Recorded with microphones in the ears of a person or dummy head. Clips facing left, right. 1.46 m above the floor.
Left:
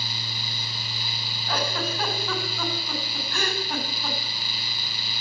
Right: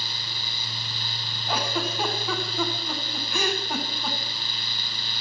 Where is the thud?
No thud in this recording.